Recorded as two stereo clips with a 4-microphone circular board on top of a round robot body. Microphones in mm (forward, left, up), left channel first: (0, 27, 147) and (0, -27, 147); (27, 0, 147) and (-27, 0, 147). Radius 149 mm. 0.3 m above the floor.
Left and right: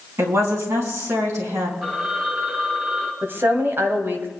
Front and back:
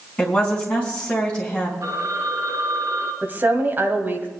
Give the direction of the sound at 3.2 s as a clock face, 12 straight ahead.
4 o'clock.